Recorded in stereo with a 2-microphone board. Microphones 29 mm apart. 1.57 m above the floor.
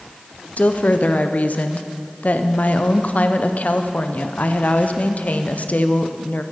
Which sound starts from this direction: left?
A woman speaking, at 0.6 s.